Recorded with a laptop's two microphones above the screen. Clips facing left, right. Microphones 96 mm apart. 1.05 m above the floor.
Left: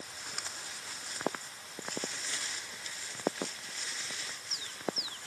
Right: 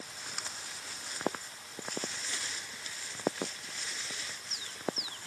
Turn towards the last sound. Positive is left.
No sound to turn to.